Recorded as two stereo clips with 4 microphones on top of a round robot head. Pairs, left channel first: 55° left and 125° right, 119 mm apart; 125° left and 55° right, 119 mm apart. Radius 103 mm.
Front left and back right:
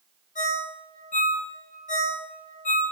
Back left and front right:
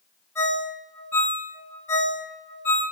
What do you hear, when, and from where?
0.3 s a ringtone: 50° left, 3.5 m